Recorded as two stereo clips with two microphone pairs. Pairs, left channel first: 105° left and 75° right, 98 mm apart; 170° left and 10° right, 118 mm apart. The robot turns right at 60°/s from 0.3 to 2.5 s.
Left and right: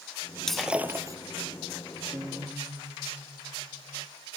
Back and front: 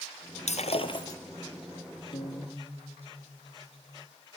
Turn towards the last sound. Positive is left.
turn(degrees=-120)